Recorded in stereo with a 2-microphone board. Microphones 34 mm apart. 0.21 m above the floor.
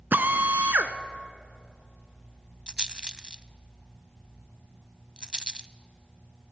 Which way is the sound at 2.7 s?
25° right (ahead or behind).